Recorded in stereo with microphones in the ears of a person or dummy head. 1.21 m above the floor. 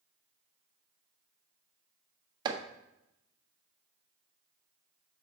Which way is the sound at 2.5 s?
30° right (ahead or behind).